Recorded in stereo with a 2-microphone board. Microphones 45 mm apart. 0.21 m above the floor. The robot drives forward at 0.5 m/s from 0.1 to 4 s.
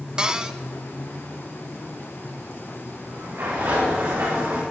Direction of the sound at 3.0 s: 70° right (ahead or behind).